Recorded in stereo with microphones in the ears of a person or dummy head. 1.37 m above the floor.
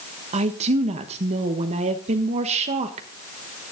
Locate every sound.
0.3 s a woman speaking: 40° right (ahead or behind), 1.2 m